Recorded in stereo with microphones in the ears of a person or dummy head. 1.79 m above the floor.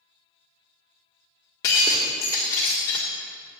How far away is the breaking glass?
About 1.4 m.